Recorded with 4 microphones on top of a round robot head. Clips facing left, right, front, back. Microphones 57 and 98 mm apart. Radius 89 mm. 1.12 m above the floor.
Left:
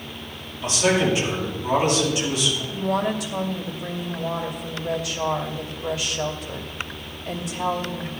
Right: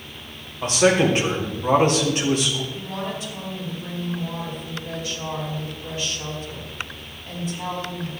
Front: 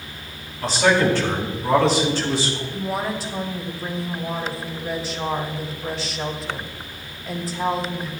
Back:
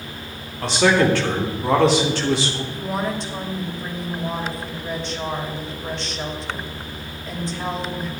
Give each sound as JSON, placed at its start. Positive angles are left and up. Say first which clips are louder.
{"t": 0.6, "sound": "a man speaking", "louder": "right 3 dB, back 1 dB", "azimuth_deg": -145, "distance_m": 4.0}
{"t": 2.7, "sound": "a woman speaking", "louder": "left 7 dB, even", "azimuth_deg": 85, "distance_m": 2.5}